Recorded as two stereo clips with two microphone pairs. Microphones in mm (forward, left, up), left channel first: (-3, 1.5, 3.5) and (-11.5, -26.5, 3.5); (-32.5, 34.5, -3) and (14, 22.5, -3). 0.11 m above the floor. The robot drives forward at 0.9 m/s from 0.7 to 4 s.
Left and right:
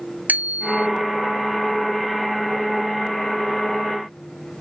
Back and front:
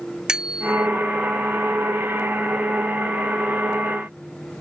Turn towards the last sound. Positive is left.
turn(degrees=-120)